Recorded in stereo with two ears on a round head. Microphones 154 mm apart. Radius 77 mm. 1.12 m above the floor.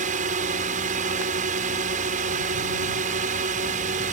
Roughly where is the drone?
Right.